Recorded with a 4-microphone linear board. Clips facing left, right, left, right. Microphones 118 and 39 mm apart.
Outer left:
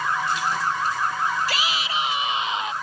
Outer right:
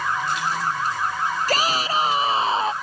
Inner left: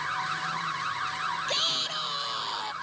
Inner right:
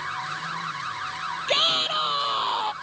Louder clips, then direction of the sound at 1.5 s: Outer right 5 dB, inner right 7 dB; 40° right (ahead or behind).